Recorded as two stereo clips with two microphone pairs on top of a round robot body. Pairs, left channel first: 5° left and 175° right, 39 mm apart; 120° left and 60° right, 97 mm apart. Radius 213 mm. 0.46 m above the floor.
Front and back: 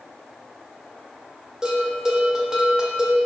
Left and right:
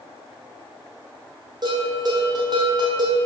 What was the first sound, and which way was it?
A bell, 105° right.